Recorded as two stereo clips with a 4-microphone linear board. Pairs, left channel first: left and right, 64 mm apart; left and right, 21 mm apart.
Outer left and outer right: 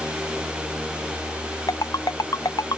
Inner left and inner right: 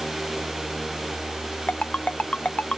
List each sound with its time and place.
1.7 s a ringtone: 80° left